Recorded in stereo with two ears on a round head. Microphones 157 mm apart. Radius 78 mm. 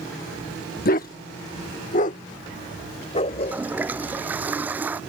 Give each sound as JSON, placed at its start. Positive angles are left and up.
{"t": 0.8, "sound": "a dog barking", "side_deg": 50}
{"t": 3.3, "sound": "a toilet flushing", "side_deg": -10}